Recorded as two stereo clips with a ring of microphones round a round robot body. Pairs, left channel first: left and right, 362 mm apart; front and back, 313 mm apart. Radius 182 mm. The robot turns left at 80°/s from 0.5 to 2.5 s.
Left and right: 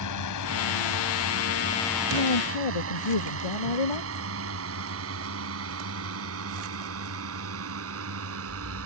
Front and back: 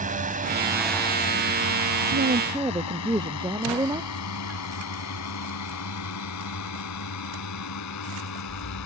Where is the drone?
120° left; by 8.9 s 40° right.